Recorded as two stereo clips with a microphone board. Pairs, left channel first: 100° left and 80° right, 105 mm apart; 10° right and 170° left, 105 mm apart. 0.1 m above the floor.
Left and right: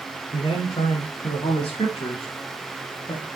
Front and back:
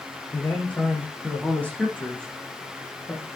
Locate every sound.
0.3 s a man speaking: 65° left, 7 m; by 3.3 s 70° left, 8.5 m